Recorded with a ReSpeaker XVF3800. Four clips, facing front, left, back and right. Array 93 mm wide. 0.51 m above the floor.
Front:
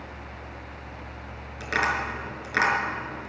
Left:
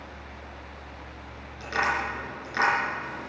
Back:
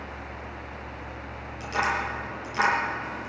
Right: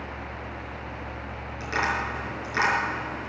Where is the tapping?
5° right, 6.5 m.